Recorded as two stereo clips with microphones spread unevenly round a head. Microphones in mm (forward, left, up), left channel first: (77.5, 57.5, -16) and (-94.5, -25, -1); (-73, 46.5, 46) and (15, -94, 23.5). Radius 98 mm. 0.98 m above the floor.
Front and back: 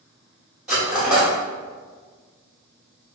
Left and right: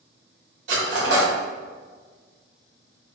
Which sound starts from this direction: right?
Cutlery clinking, at 0.7 s.